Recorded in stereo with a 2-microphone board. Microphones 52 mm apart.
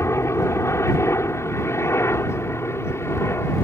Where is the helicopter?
60° left (ahead or behind); by 3.6 s 55° left (ahead or behind).